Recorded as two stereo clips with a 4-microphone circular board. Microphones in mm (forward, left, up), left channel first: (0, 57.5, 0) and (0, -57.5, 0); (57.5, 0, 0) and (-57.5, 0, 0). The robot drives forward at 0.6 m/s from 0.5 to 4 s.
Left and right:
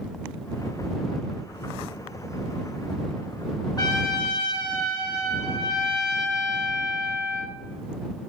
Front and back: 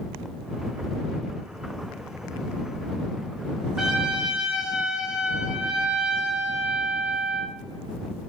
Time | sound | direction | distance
3.8 | a trumpet | 95° left | 1.6 m